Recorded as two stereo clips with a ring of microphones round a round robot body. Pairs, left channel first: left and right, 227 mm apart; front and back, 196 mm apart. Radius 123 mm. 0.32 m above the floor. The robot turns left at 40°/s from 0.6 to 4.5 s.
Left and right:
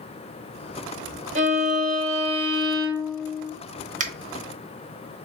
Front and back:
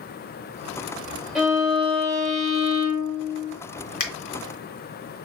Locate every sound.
1.4 s a violin: 90° right, 1.4 m; by 3.5 s straight behind, 1.4 m
4.0 s a finger snap: 40° right, 1.0 m; by 4.1 s 45° right, 1.0 m